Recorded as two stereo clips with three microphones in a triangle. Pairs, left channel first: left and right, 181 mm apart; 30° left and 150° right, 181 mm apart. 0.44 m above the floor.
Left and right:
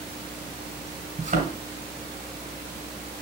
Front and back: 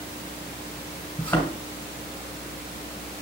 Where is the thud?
50° right, 2.5 m.